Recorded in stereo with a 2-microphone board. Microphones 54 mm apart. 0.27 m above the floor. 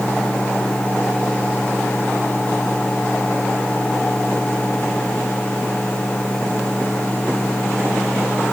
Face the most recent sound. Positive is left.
No sound to turn to.